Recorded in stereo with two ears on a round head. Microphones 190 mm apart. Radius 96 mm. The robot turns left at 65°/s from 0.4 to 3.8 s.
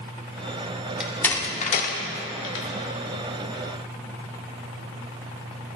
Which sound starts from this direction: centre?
A door slam, at 1.0 s.